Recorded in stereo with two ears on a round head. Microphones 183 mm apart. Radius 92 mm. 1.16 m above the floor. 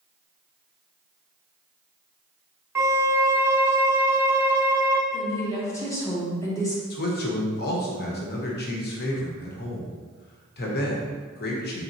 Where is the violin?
10° right (ahead or behind), 0.5 m.